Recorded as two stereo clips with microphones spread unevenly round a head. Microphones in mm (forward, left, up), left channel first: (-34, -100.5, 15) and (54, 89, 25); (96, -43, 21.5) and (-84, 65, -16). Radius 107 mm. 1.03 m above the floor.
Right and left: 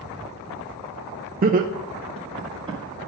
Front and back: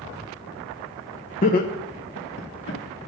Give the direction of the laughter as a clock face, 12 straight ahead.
11 o'clock.